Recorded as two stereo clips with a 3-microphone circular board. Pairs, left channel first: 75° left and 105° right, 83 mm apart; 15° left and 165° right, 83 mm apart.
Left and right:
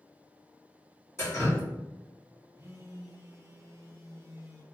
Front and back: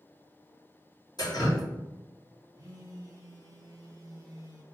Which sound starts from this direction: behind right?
A phone buzzing, at 2.5 s.